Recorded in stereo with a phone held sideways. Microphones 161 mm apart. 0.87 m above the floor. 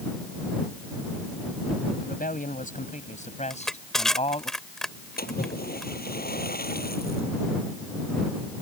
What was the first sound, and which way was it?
A man speaking, 65° left (ahead or behind).